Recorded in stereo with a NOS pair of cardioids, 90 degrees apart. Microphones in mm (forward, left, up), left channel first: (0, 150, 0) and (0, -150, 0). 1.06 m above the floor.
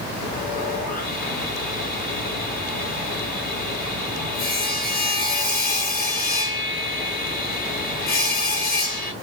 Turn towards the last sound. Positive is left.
turn(degrees=30)